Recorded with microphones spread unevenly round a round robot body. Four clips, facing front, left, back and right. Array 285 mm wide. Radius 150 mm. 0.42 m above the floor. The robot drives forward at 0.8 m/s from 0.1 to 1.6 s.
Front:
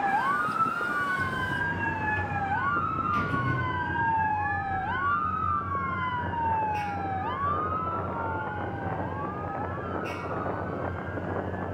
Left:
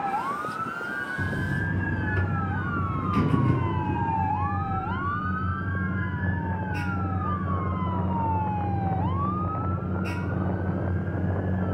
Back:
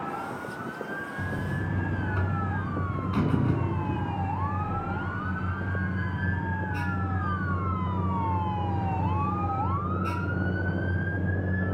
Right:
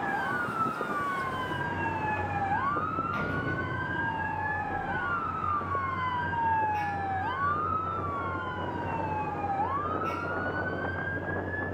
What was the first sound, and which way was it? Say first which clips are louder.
A buzzer: left 2 dB, front 3 dB; 100° left.